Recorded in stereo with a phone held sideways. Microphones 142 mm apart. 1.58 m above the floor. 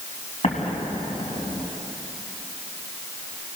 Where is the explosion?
55° left (ahead or behind), 3.5 m.